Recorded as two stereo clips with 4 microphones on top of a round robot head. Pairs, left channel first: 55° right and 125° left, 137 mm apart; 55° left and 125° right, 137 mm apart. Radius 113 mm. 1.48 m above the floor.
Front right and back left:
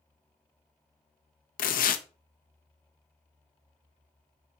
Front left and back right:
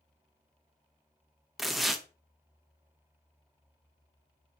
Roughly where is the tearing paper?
Ahead right.